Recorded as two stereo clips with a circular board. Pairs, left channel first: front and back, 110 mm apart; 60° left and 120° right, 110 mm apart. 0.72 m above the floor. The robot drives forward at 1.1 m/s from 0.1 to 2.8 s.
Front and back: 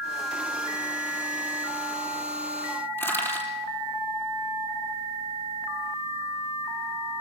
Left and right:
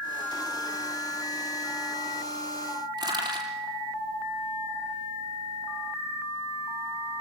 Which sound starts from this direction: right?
Crushing, at 3.0 s.